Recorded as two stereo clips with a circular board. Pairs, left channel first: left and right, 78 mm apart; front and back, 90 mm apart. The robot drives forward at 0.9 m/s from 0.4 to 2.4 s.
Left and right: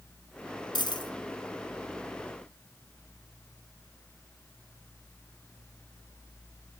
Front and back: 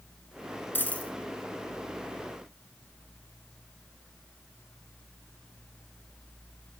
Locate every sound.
0.8 s a dropped coin: 70° left, 1.9 m; by 1.1 s 80° left, 1.8 m